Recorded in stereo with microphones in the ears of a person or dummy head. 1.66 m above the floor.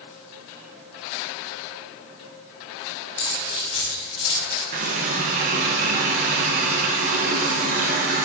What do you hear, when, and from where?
3.2 s keys jangling: 70° left (ahead or behind), 3 m; by 4.6 s 75° left (ahead or behind), 4 m
4.7 s a running tap: 40° right (ahead or behind), 0.9 m